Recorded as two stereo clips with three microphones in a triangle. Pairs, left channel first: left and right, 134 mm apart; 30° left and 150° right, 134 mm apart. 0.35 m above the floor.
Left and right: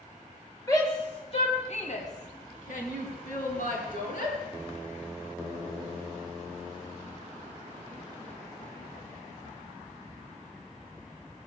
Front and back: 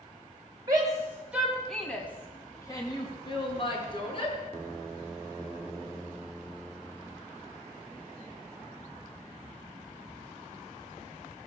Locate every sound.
0.7 s a shout: 155° left, 2.5 m; by 4.3 s 75° left, 5 m